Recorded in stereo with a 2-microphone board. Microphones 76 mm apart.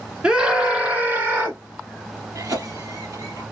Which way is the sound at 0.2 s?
10° right (ahead or behind).